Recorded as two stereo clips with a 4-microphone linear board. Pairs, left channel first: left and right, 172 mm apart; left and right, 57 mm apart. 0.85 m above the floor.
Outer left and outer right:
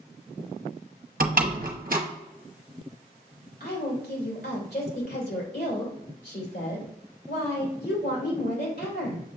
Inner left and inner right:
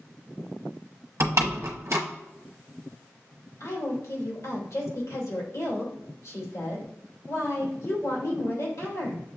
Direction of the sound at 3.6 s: 80° left.